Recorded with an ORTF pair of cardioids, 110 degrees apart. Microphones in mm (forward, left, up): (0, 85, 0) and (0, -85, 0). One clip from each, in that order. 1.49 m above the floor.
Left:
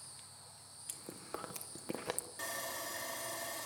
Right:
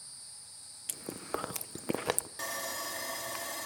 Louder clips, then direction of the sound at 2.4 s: Right 4 dB; 30° right.